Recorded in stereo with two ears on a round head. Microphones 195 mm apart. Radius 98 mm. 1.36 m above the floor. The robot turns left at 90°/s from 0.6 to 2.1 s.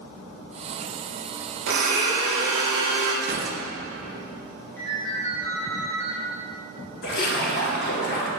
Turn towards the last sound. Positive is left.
turn(degrees=45)  # may be behind; listen again after turning